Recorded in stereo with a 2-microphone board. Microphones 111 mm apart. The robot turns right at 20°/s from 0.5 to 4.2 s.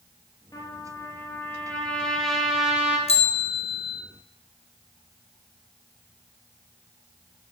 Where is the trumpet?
145° left, 2.5 m; by 3.0 s 165° right, 2.5 m.